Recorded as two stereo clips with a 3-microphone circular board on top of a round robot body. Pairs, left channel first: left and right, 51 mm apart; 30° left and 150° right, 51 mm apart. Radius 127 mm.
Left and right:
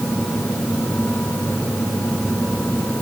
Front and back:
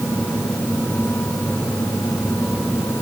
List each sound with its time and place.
Only background noise.